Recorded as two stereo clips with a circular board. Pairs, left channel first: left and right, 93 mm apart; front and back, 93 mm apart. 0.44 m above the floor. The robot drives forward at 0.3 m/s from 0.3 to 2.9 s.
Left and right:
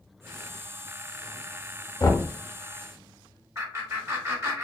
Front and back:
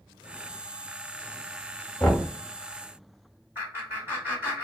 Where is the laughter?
125° right, 1.9 m.